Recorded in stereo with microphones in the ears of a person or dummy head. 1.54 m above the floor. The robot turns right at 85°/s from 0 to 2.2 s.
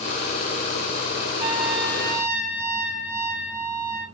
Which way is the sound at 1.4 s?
165° right.